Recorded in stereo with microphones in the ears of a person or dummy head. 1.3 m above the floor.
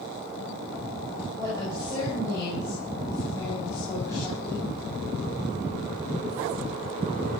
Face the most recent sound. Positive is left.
turn(degrees=15)  # may be behind; listen again after turning